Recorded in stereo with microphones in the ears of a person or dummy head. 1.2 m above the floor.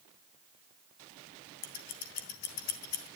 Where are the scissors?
45° left (ahead or behind), 0.8 m.